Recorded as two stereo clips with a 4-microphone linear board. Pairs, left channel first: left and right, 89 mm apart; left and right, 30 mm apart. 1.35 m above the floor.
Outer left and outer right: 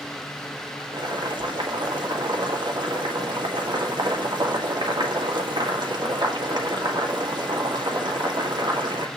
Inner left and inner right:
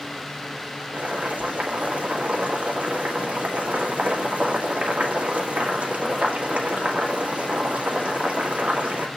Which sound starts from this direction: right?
Boiling, at 0.9 s.